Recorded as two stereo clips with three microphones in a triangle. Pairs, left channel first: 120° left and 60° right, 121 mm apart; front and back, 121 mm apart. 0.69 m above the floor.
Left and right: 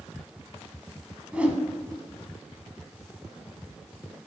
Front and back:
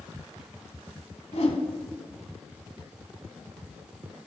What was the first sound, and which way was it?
A whoosh, 20° left.